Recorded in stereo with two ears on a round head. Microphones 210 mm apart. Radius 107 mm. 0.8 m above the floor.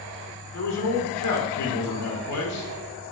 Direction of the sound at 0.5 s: 75° left (ahead or behind).